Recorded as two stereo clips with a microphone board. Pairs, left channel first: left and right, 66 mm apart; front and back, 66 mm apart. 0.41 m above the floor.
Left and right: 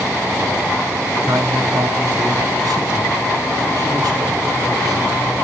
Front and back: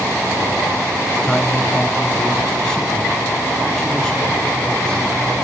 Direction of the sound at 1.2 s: 75° right.